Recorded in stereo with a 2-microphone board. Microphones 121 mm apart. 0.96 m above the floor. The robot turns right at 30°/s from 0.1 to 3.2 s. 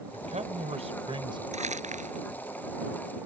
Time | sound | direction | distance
0.1 | a man speaking | 80° right | ?
1.5 | crumpling | 75° right (ahead or behind) | ?